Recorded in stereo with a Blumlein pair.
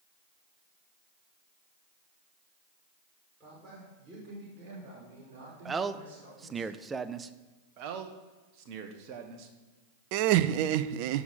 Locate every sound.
3.4 s a man speaking: 15° right, 6 m; by 6.7 s 55° right, 6 m
5.7 s a man speaking: 15° right, 0.7 m
7.8 s a man speaking: 40° right, 1.5 m
10.1 s laughter: 45° right, 0.7 m